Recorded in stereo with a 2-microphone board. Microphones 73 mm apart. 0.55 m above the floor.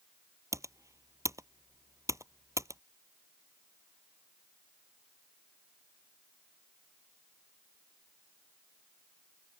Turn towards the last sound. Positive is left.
turn(degrees=-45)  # may be behind; listen again after turning